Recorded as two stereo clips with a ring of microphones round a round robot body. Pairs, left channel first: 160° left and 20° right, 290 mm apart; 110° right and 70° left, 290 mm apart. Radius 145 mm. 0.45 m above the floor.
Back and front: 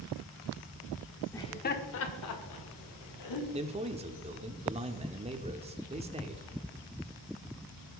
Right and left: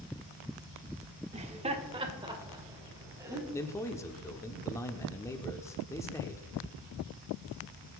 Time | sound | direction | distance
1.3 | laughter | 90° left | 1.2 m
3.5 | a man speaking | 50° right | 1.1 m